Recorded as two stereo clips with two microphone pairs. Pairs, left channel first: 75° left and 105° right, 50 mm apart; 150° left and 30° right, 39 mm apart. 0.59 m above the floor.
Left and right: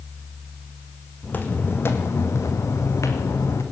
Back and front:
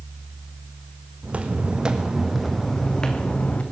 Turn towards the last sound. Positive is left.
turn(degrees=95)